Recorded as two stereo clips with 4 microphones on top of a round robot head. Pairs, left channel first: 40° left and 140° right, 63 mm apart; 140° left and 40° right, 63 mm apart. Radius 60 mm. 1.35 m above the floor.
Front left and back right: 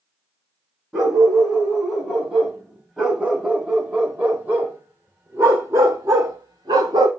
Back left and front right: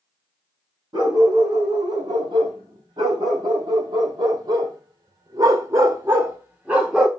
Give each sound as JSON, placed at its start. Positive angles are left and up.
{"t": 0.9, "sound": "a dog barking", "azimuth_deg": -60, "distance_m": 4.0}